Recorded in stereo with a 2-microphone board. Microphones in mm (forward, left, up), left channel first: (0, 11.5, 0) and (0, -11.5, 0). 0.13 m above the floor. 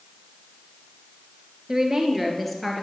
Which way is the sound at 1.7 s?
20° right (ahead or behind).